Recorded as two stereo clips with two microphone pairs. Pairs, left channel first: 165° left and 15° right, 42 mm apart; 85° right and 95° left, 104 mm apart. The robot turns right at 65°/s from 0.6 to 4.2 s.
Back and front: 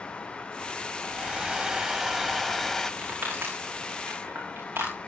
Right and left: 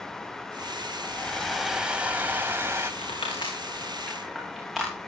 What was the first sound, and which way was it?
A hair dryer, 25° right.